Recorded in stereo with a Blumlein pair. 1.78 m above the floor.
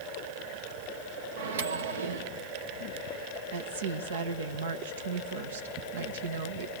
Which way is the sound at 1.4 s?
65° right.